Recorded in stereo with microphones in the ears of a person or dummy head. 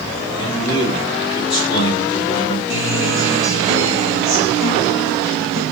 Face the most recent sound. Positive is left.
turn(degrees=-20)  # may be behind; listen again after turning